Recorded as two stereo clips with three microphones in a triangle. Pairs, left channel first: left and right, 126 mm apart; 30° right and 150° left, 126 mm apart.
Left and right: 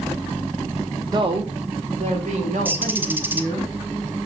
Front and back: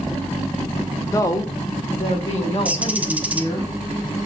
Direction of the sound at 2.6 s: 145° right.